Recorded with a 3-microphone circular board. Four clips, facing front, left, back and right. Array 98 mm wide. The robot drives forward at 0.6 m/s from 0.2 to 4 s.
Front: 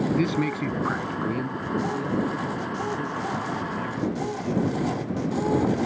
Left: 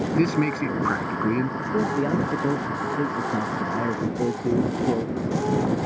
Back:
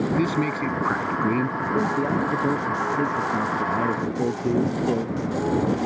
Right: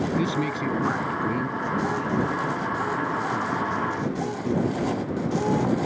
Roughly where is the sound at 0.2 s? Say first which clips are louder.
Left 4 dB, back 1 dB; left.